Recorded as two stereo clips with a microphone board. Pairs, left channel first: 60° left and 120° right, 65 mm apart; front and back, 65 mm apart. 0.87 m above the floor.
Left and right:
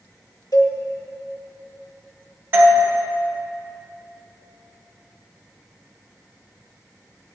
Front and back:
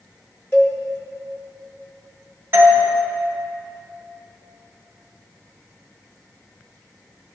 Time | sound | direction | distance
0.5 | a cowbell | 60° left | 1.2 m
2.5 | a doorbell | 150° right | 1.2 m